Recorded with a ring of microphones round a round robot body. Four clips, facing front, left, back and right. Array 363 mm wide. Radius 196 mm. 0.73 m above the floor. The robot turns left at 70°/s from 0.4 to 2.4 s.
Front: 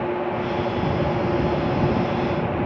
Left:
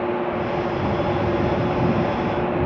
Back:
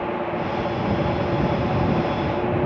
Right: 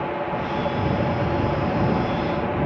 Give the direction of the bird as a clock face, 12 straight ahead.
I don't hear a bird.